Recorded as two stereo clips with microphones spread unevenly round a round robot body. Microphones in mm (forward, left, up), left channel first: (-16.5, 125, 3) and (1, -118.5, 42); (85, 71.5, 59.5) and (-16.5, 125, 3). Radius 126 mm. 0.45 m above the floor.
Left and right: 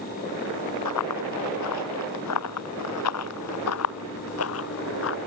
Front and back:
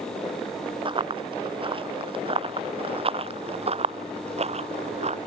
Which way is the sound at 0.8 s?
110° left.